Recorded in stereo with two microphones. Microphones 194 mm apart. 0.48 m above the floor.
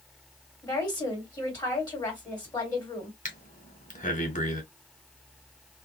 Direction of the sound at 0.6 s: 20° left (ahead or behind).